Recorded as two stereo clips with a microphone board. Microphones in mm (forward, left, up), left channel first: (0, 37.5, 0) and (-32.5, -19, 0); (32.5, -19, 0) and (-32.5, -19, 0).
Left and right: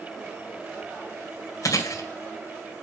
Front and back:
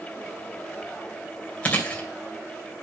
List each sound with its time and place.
1.6 s chewing: 65° left, 2.5 m